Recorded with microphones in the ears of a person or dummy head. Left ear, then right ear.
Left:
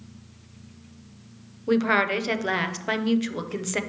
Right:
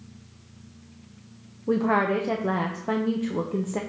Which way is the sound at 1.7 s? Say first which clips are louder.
Left 1 dB; 60° left (ahead or behind).